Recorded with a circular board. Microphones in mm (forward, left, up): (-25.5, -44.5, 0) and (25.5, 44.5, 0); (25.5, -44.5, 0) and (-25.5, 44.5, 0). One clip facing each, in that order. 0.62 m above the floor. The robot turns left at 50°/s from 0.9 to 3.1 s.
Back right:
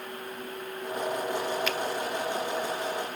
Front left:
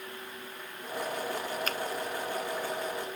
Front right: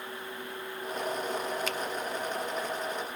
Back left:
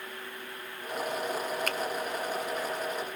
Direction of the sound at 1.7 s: 100° left.